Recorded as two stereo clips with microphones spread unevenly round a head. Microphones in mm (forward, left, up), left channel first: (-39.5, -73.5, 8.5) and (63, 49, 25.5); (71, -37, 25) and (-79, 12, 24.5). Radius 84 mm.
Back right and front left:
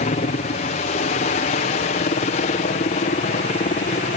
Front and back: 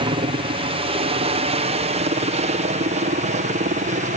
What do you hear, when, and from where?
0.0 s a helicopter: 155° right; by 4.2 s 165° right